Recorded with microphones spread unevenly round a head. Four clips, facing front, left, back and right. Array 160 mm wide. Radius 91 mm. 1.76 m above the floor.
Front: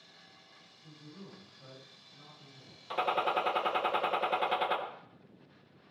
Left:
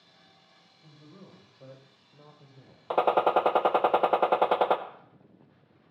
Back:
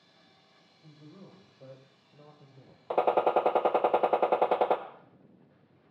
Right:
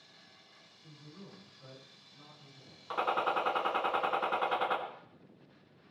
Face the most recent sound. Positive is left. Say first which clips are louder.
# left 9 dB, back 6 dB
turn(degrees=125)